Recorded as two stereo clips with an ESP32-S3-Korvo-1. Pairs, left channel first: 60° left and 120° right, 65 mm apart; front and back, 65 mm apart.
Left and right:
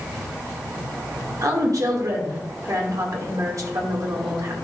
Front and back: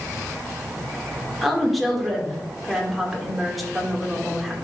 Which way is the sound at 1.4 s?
90° right.